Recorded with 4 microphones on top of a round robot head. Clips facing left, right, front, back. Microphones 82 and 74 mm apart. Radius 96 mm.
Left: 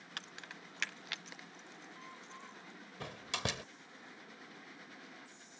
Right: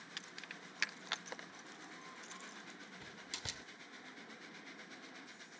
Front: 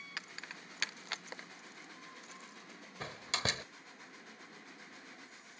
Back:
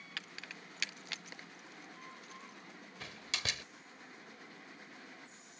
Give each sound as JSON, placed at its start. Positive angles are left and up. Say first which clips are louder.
{"t": 0.2, "sound": "keys jangling", "louder": "left 4 dB, front 1 dB", "azimuth_deg": 65}
{"t": 3.0, "sound": "a door slam", "louder": "left 13 dB, front 5 dB", "azimuth_deg": 50}